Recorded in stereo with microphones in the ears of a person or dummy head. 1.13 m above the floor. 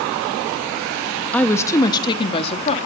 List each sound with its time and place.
1.3 s a woman speaking: 10° left (ahead or behind), 1.4 m; by 2.8 s 40° left (ahead or behind), 2 m